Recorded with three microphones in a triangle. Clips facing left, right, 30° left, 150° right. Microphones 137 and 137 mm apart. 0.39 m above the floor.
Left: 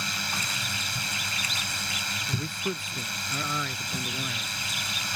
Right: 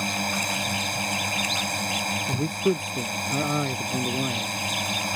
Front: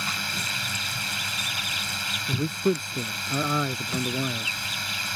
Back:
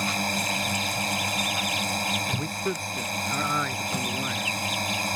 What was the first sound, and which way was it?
A drone, 115° right.